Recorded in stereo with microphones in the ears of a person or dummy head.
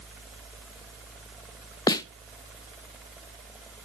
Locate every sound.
1.9 s a snare drum: 20° left (ahead or behind), 0.5 m